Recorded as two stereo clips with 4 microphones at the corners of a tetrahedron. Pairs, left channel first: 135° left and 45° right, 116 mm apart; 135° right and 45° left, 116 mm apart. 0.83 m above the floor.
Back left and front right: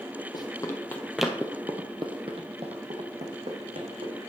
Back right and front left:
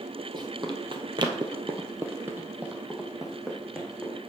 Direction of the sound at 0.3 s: 90° left.